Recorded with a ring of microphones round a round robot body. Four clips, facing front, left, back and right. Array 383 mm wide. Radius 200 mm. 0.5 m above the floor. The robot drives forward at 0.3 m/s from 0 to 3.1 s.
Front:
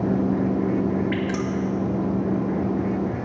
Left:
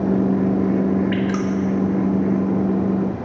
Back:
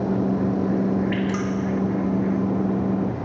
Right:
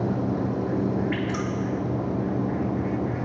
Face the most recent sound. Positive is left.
turn(degrees=120)